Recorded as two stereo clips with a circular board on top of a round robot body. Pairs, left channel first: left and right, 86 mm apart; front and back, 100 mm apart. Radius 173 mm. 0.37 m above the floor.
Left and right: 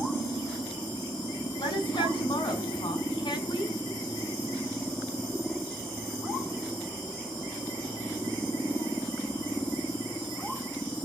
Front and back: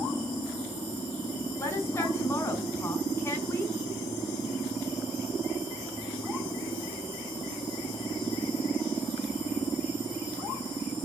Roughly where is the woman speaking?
Ahead left.